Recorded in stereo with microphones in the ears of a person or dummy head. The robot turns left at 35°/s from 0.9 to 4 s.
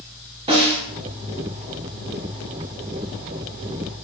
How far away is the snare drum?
About 0.8 m.